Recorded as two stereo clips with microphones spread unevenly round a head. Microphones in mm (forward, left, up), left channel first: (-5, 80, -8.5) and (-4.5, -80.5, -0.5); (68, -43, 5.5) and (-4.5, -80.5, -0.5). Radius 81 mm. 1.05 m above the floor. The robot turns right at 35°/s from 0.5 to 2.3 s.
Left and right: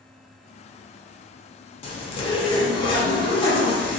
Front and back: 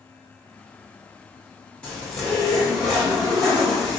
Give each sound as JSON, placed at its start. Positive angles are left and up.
{"t": 1.8, "sound": "a zipper", "azimuth_deg": 110, "distance_m": 0.6}